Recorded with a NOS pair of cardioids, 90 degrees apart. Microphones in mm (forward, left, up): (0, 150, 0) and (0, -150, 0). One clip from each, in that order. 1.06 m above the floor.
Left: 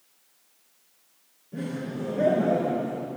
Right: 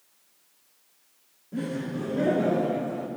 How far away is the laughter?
About 2 m.